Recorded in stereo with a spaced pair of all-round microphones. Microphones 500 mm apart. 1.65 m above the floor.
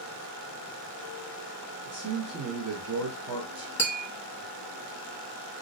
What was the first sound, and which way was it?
A man speaking, 30° right (ahead or behind).